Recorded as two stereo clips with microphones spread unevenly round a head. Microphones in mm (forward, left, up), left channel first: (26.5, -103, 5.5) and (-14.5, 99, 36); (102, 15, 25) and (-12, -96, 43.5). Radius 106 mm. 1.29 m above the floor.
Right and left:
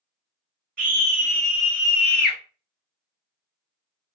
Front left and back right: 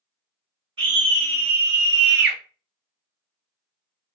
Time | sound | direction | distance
0.8 | a scream | 160° left | 1.2 m